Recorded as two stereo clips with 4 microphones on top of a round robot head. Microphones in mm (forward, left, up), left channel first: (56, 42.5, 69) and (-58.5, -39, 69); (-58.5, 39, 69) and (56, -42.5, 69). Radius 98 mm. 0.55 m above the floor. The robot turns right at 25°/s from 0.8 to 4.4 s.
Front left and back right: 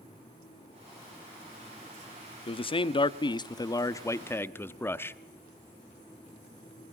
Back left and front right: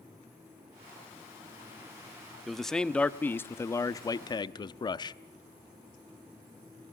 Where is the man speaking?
55° left, 0.7 m; by 5.2 s 100° left, 0.7 m.